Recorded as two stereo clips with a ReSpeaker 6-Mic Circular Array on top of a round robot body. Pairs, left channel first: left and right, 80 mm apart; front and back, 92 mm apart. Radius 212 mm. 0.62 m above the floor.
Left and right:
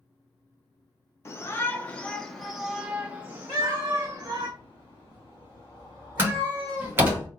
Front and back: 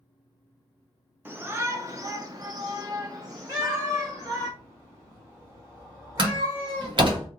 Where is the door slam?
155° right, 1.7 m.